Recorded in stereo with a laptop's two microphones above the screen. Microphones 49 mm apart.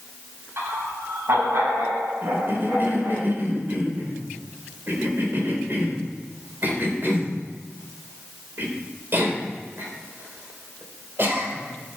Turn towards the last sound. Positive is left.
turn(degrees=-45)  # may be behind; listen again after turning